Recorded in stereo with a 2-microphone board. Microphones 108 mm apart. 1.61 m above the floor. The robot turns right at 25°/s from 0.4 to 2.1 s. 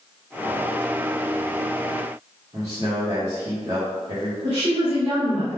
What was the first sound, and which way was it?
A man speaking, 40° right (ahead or behind).